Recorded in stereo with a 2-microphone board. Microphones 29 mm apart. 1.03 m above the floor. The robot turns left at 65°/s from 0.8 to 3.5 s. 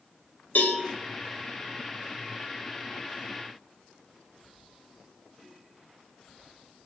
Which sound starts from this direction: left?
A cowbell, at 0.6 s.